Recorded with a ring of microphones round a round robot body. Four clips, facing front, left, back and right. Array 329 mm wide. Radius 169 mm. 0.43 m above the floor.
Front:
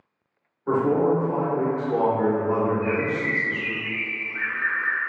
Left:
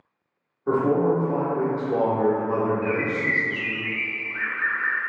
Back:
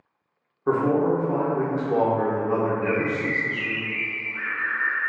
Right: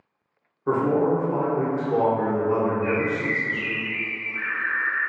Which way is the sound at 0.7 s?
170° right.